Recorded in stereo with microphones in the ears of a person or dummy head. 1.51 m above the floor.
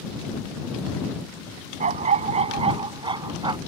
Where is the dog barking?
45° right (ahead or behind); by 3.6 s 30° right (ahead or behind).